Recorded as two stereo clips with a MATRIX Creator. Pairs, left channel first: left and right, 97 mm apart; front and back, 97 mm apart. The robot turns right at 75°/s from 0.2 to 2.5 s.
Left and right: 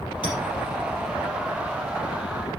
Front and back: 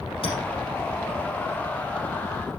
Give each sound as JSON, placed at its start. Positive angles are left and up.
{"t": 0.2, "sound": "a clink", "azimuth_deg": -15, "distance_m": 4.5}